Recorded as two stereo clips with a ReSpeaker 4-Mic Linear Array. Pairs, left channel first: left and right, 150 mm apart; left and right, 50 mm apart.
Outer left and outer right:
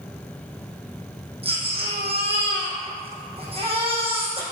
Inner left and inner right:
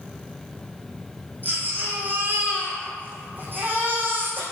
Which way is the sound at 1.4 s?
40° right (ahead or behind).